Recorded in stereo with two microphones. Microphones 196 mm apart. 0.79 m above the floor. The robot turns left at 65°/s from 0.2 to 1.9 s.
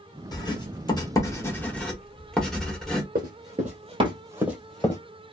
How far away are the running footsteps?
About 1.3 m.